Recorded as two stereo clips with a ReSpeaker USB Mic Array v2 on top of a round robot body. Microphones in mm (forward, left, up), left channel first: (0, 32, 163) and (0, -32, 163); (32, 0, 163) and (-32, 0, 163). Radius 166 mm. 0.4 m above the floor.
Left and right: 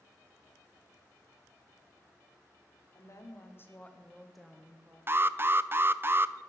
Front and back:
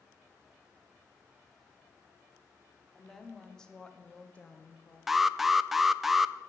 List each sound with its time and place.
2.9 s a woman speaking: 85° left, 2 m; by 5.0 s 50° right, 1.6 m
5.1 s an alarm: 95° right, 0.6 m